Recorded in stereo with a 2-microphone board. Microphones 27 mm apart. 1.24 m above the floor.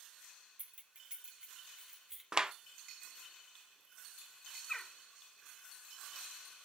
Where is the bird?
20° left (ahead or behind), 1.7 m.